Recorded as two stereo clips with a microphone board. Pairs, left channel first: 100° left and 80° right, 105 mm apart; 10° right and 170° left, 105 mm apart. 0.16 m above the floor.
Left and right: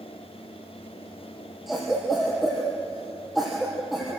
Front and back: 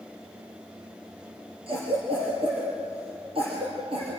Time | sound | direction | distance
1.7 | a cough | 170° right | 3.5 m